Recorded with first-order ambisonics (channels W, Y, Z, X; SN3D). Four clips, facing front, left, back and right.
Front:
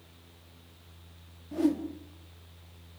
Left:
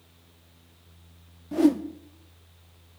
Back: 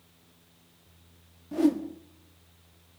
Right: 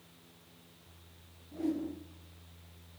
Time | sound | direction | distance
1.5 | a whoosh | 105° left | 1.3 m